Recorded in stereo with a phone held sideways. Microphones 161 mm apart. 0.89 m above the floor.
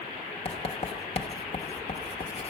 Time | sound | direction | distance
0.5 | writing | 40° left (ahead or behind) | 1.0 m